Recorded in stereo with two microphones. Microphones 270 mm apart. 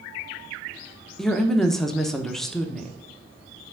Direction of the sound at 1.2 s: Centre (ahead or behind).